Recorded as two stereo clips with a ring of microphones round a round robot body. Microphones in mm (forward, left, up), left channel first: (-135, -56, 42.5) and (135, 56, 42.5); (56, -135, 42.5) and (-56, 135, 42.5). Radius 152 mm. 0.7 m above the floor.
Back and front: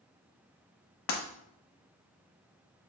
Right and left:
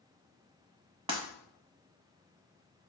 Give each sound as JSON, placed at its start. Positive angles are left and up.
{"t": 1.1, "sound": "breaking glass", "azimuth_deg": 180, "distance_m": 0.7}